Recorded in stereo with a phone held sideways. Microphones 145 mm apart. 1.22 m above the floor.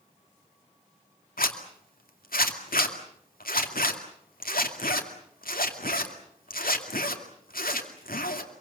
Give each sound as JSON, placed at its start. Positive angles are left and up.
{"t": 1.4, "sound": "a zipper", "side_deg": 85, "distance_m": 2.5}